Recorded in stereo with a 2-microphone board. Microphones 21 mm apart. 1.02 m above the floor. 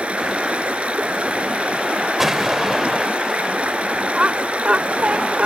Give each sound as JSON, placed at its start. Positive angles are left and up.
{"t": 0.0, "sound": "running water", "side_deg": -70}
{"t": 2.2, "sound": "an explosion", "side_deg": -10}
{"t": 4.1, "sound": "laughter", "side_deg": -55}